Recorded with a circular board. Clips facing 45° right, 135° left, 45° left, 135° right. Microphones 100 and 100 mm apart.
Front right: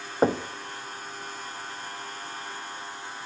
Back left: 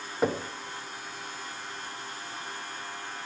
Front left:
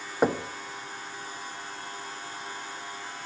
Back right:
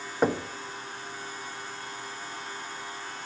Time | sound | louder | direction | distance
0.2 | knocking | front right 4 dB, front left 1 dB | 35° right | 0.7 m